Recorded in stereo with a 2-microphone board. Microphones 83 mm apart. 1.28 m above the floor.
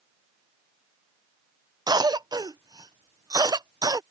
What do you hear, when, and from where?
1.9 s a cough: 55° right (ahead or behind)